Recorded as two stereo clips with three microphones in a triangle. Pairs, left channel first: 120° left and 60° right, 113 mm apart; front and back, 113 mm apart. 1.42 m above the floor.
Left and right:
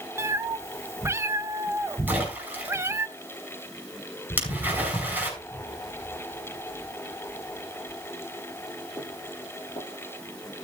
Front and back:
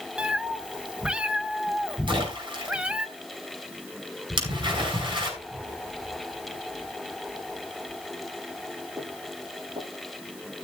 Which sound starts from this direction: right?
A cat meowing, at 0.2 s.